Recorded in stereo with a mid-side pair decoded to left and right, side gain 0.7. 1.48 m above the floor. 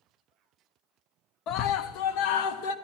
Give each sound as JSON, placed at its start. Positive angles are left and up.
{"t": 1.5, "sound": "a scream", "azimuth_deg": 50, "distance_m": 0.8}